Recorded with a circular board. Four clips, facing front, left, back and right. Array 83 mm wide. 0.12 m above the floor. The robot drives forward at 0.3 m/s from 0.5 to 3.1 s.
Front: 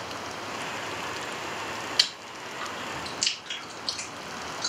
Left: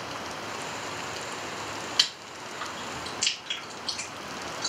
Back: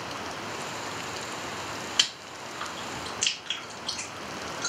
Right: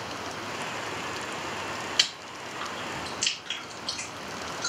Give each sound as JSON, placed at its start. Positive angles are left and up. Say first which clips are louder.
{"t": 2.0, "sound": "chewing", "louder": "right 1 dB, even", "azimuth_deg": -160, "distance_m": 1.7}